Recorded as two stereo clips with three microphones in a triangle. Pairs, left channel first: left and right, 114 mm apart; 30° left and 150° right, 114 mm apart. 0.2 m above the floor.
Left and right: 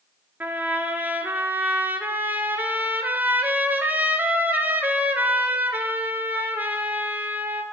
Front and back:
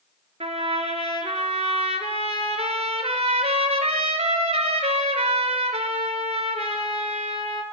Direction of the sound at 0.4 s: 165° right.